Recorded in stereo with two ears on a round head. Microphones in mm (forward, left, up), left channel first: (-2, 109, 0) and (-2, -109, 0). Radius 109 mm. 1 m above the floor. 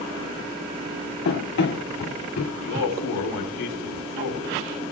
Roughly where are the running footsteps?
Left.